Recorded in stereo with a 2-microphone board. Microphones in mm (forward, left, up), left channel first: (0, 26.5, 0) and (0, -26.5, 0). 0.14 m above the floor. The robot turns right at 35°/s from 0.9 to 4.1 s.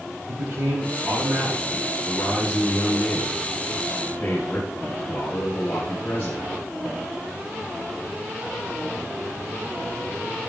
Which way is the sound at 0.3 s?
65° right.